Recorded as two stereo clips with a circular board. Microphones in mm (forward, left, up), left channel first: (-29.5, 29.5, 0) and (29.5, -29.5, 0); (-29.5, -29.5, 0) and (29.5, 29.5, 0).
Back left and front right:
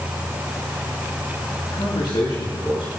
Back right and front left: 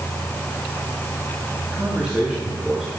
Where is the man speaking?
120° left, 6 m; by 2.9 s 125° left, 6.5 m.